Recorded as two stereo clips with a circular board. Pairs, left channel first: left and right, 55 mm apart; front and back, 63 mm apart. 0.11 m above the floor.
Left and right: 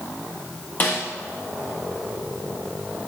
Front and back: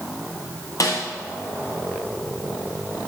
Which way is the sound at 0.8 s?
30° left.